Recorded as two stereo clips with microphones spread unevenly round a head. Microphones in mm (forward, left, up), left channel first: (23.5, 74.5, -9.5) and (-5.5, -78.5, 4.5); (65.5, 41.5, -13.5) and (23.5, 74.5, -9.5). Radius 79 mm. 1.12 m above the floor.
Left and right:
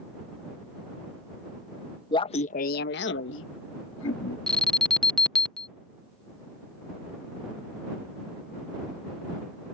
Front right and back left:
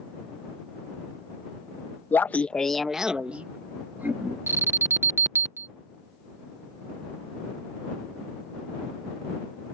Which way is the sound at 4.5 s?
160° left.